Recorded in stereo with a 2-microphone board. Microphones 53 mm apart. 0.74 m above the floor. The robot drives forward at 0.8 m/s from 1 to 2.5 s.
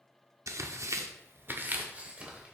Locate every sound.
0.5 s tearing paper: 65° right (ahead or behind), 0.6 m; by 2.5 s 20° right (ahead or behind), 1.5 m